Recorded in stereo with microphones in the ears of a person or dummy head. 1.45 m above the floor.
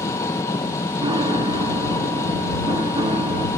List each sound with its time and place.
0.0 s an engine running: 10° left (ahead or behind)
1.0 s a piano: 20° right (ahead or behind)